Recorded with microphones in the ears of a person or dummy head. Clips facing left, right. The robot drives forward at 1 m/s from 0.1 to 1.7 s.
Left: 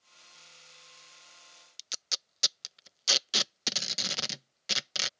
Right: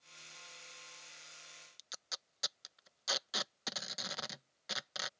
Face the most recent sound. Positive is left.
turn(degrees=35)  # may be behind; listen again after turning